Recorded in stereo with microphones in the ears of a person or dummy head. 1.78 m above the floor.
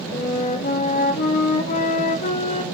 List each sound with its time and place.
0.1 s a flute: 40° left (ahead or behind), 1.9 m